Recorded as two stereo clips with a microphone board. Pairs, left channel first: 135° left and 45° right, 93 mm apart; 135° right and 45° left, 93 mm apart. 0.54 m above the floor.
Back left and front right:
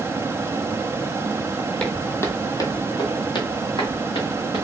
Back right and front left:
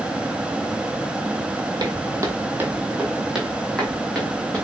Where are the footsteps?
60° left, 0.7 m; by 4.6 s 150° left, 1.5 m.